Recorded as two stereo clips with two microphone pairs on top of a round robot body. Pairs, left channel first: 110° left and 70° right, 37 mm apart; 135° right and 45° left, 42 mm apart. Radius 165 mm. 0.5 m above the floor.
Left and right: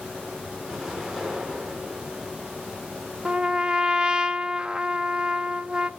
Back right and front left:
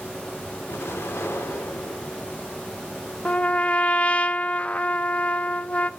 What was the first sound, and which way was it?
An explosion, 155° right.